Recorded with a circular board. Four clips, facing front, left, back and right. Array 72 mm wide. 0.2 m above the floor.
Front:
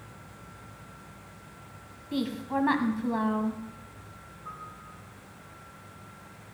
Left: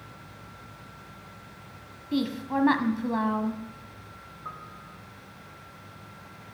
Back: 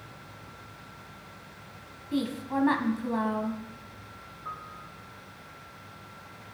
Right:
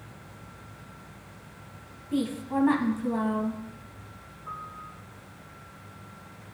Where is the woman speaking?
80° left, 1.2 m.